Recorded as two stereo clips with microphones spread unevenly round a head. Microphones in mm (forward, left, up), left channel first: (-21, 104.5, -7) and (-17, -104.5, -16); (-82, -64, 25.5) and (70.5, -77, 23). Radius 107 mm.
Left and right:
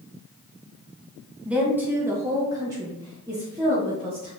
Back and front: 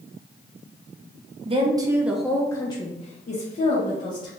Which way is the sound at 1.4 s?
10° right.